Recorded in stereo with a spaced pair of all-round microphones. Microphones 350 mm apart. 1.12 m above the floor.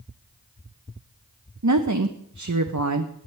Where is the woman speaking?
55° right (ahead or behind), 0.8 m.